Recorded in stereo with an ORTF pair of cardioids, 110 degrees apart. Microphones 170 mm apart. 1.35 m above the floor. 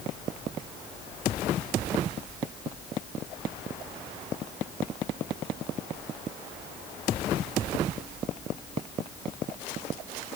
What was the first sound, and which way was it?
Only background noise.